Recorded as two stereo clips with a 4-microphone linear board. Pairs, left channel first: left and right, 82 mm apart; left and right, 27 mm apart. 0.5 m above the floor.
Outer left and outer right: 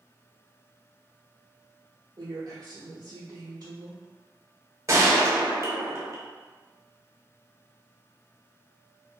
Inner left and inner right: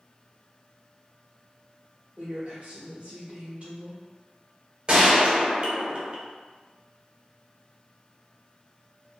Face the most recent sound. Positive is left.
turn(degrees=-40)  # may be behind; listen again after turning